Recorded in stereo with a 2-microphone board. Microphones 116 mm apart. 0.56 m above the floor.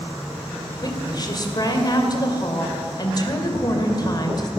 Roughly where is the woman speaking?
Left.